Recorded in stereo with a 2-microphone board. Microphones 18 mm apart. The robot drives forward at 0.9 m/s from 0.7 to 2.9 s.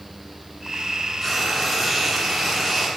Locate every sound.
1.2 s frying: 10° left (ahead or behind), 2 m; by 2.9 s 5° left (ahead or behind), 3.5 m